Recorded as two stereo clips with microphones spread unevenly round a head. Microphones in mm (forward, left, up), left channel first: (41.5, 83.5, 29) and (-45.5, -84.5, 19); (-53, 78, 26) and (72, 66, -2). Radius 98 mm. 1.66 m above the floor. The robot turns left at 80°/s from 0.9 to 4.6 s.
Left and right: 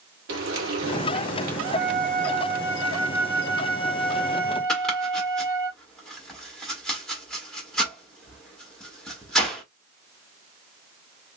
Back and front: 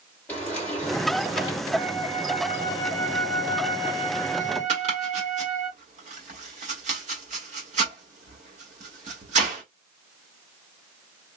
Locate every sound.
0.3 s frying: 115° right, 2.5 m; by 1.6 s 170° right, 2.5 m
1.7 s a flute: 145° right, 2 m; by 5.7 s 15° right, 2 m
4.7 s chopping: 20° right, 1.6 m